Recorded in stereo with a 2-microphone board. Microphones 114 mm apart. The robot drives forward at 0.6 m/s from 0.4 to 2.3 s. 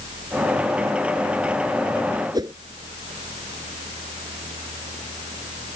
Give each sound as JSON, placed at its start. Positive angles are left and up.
{"t": 2.3, "sound": "a whoosh", "side_deg": -35}